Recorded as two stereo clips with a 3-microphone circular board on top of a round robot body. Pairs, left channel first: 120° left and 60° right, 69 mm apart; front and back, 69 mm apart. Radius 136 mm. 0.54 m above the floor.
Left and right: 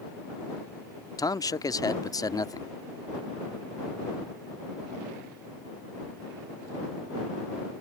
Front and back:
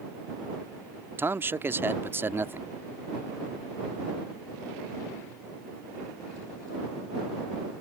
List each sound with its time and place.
1.2 s a man speaking: 130° left